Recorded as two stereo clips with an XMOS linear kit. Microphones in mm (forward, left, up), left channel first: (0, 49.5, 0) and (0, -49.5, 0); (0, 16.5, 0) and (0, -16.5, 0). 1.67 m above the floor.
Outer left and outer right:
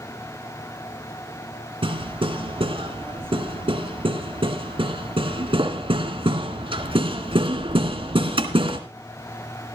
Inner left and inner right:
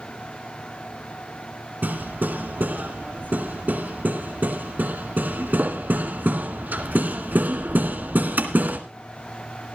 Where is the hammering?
60° right (ahead or behind), 2 m.